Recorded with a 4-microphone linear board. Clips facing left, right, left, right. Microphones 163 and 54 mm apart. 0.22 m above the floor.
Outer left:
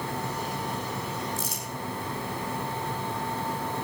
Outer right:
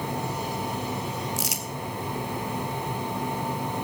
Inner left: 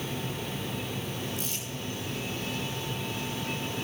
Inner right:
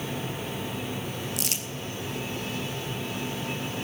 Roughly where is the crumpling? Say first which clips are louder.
Outer right 2 dB, inner right 3 dB; right.